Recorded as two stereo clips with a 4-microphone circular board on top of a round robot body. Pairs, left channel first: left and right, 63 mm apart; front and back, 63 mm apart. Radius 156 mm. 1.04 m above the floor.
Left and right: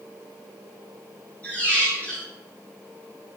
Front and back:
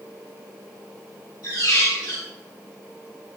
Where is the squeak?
25° left, 5 m.